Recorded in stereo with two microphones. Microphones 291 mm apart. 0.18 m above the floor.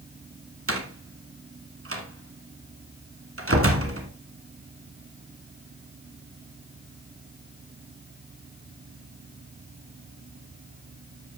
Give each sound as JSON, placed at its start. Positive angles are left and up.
{"t": 0.7, "sound": "a door slam", "side_deg": -50, "distance_m": 1.6}